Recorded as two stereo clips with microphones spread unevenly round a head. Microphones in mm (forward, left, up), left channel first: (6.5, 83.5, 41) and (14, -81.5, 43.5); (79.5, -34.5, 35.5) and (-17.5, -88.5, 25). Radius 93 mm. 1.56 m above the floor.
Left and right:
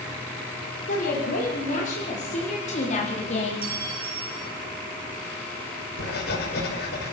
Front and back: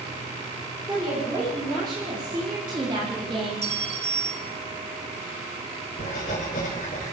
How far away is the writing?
About 5 m.